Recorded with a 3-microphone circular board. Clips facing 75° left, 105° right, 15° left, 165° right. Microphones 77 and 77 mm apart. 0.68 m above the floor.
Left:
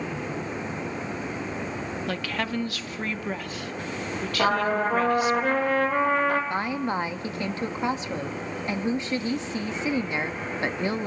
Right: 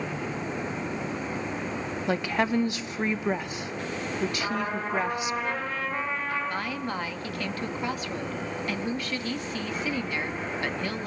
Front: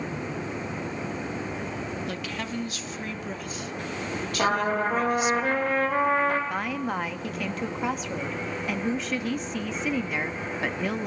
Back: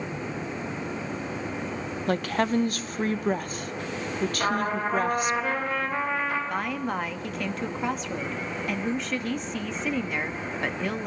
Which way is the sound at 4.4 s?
55° left.